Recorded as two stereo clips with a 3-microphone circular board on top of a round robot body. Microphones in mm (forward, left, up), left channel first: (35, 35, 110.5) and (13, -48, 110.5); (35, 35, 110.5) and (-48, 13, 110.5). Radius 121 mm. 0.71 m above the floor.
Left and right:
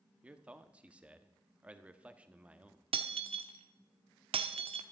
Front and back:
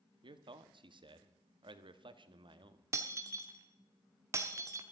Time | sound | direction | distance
0.2 | a man speaking | straight behind | 1.2 m
2.9 | breaking glass | 105° right | 1.0 m